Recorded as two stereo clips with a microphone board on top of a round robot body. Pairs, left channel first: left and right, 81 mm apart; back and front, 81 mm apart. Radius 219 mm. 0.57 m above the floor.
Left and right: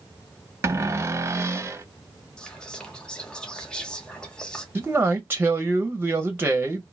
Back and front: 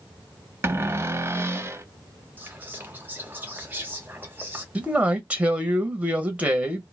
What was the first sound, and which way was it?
A cupboard door, 45° right.